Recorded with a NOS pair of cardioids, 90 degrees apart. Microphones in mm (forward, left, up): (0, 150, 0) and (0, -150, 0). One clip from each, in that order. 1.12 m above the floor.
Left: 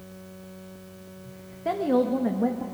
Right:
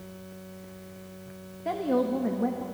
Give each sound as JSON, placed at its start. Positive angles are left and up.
{"t": 1.6, "sound": "a woman speaking", "azimuth_deg": 20, "distance_m": 1.3}